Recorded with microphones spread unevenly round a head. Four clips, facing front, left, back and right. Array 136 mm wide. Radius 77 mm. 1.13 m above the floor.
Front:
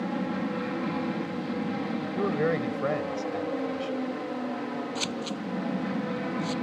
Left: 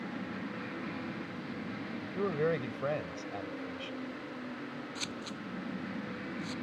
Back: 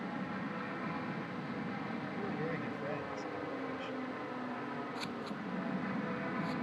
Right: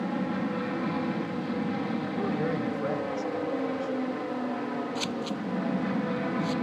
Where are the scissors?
35° right.